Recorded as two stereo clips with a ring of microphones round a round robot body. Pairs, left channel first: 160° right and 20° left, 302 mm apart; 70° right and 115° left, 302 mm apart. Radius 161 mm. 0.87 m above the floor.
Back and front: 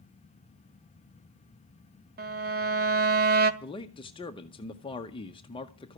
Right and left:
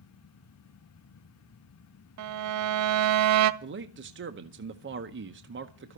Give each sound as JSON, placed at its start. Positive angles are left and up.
{"t": 2.2, "sound": "a violin", "azimuth_deg": 80, "distance_m": 0.5}
{"t": 3.6, "sound": "a man speaking", "azimuth_deg": 135, "distance_m": 0.8}